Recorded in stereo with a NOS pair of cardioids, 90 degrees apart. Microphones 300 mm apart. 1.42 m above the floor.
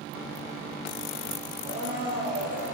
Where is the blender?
55° right, 1.6 m.